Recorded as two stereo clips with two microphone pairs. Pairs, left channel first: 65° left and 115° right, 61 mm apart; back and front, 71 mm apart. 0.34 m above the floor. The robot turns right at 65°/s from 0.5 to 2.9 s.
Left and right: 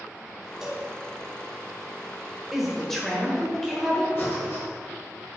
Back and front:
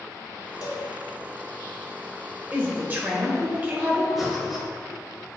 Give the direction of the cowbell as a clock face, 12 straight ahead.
7 o'clock.